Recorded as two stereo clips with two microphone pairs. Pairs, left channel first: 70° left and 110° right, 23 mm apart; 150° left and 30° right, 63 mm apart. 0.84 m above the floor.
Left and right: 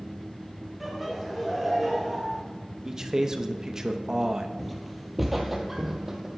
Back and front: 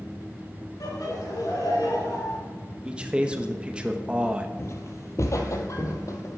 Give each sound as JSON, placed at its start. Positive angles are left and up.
{"t": 0.8, "sound": "laughter", "azimuth_deg": 165, "distance_m": 2.5}
{"t": 2.9, "sound": "a man speaking", "azimuth_deg": -85, "distance_m": 0.8}
{"t": 4.6, "sound": "footsteps", "azimuth_deg": 150, "distance_m": 1.1}